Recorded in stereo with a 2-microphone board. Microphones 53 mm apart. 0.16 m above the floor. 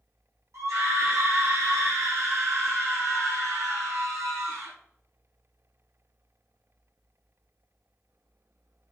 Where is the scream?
80° right, 8.5 m.